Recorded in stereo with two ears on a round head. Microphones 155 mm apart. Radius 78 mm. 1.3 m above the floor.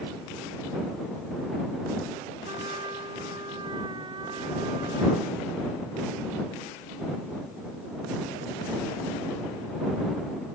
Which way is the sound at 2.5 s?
25° right (ahead or behind).